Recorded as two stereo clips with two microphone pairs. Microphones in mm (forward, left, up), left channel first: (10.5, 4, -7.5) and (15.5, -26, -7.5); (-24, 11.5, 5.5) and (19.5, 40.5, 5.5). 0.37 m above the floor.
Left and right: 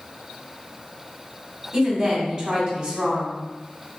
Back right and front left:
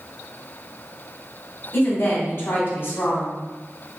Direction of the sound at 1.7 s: 150° right.